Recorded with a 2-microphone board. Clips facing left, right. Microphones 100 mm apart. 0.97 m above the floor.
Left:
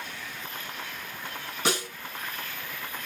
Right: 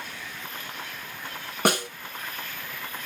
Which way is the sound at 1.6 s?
55° right (ahead or behind).